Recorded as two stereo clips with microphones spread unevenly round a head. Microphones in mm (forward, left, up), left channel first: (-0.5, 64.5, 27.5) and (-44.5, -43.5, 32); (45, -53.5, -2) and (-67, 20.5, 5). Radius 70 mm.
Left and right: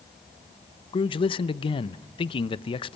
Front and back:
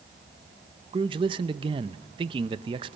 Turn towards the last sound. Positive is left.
turn(degrees=95)